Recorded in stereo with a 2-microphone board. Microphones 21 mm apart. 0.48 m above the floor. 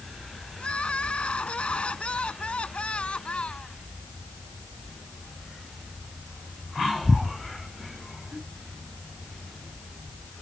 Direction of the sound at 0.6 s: 70° left (ahead or behind).